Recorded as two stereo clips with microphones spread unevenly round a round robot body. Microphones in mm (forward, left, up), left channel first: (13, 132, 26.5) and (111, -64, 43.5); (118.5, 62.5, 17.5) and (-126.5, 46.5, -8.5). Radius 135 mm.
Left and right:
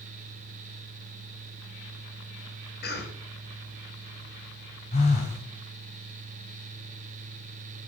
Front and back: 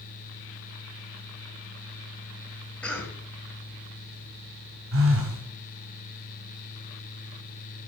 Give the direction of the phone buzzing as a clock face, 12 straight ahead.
6 o'clock.